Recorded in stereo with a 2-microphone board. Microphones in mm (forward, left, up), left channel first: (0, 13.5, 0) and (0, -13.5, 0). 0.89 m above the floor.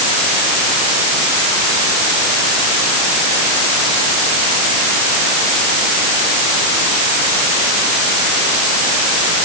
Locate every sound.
Only background noise.